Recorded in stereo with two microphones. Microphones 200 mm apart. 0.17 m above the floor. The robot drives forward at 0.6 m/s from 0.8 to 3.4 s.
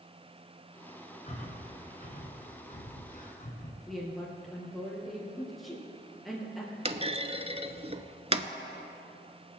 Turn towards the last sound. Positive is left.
turn(degrees=-30)  # may be behind; listen again after turning